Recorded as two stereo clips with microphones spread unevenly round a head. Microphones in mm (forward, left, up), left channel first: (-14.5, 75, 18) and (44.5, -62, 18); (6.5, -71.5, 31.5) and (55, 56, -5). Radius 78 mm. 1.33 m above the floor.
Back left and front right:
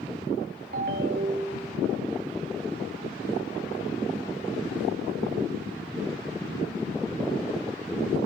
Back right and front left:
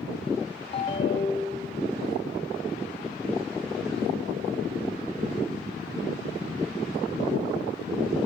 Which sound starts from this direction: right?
A ringtone, at 0.7 s.